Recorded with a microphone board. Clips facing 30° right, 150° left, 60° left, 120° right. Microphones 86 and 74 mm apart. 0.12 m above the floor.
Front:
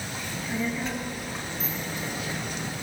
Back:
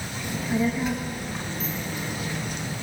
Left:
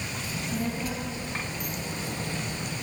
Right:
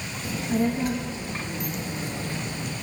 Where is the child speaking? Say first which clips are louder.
Back 6 dB, right 8 dB; 135° right, 2.0 m; by 2.7 s 85° right, 1.5 m.